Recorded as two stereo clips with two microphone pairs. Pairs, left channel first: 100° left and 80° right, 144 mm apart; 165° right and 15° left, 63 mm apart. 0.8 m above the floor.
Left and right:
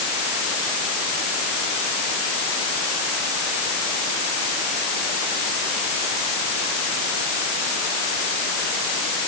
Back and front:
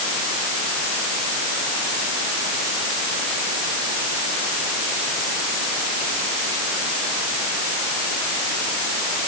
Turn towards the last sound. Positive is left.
No sound to turn to.